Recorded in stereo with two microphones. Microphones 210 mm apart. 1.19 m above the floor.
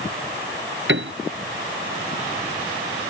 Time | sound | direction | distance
0.9 | a piano | 65° right (ahead or behind) | ?